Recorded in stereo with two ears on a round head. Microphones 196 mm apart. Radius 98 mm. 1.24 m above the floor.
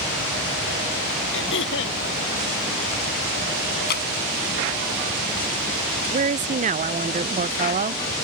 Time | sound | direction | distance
1.3 | throat clearing | 60° left (ahead or behind) | ?
3.9 | dripping | 50° left (ahead or behind) | ?
6.1 | a woman speaking | 35° right (ahead or behind) | ?